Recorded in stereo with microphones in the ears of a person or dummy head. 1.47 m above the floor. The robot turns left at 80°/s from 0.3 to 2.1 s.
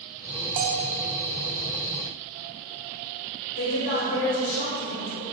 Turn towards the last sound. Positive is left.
turn(degrees=60)  # may be behind; listen again after turning